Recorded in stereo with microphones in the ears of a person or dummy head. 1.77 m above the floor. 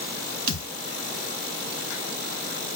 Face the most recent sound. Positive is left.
turn(degrees=65)  # may be behind; listen again after turning